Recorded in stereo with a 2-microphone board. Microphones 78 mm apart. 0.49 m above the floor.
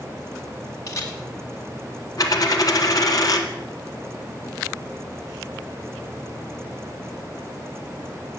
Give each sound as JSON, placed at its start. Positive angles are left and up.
{"t": 0.9, "sound": "a camera shutter", "side_deg": 40, "distance_m": 1.5}
{"t": 2.2, "sound": "a dropped coin", "side_deg": 50, "distance_m": 1.1}